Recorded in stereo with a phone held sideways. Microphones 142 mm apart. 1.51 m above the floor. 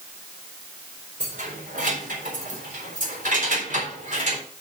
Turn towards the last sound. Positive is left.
turn(degrees=-55)  # may be behind; listen again after turning